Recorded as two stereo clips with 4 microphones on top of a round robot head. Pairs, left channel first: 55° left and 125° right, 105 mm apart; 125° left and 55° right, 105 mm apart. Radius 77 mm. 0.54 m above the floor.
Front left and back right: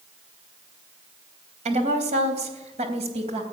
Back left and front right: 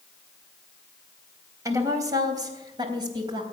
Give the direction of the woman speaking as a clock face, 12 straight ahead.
4 o'clock.